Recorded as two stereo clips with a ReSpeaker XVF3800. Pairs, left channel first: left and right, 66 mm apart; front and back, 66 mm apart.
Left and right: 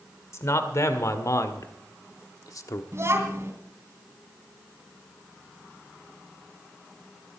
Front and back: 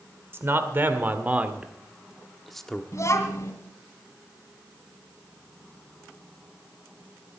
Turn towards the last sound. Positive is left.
turn(degrees=-45)